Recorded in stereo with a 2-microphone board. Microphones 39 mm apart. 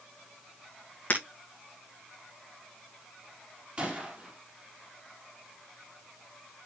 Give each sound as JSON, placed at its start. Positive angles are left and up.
{"t": 1.1, "sound": "breaking glass", "side_deg": 40, "distance_m": 2.5}
{"t": 3.8, "sound": "a gunshot", "side_deg": -35, "distance_m": 3.5}